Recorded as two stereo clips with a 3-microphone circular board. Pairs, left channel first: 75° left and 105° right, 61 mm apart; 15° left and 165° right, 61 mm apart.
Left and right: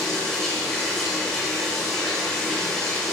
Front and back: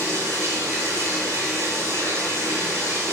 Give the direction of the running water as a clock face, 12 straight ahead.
7 o'clock.